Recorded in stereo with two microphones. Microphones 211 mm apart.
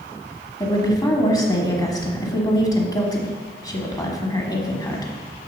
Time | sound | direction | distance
0.6 | a woman speaking | 20° left (ahead or behind) | 1.1 m